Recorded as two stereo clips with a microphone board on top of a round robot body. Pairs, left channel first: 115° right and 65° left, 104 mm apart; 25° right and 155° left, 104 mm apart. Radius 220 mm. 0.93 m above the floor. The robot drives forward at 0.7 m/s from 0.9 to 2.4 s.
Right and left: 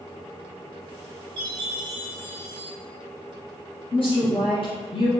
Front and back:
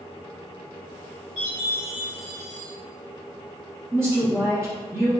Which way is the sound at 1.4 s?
115° left.